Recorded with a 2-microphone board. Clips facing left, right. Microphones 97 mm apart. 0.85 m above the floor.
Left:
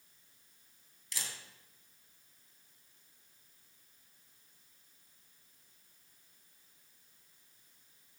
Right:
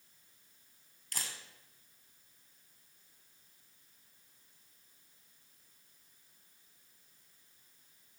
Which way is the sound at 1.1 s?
50° right (ahead or behind).